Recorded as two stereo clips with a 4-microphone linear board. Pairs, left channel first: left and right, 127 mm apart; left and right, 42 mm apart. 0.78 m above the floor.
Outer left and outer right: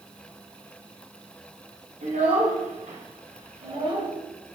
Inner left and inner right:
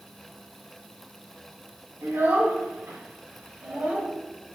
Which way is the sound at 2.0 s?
85° right.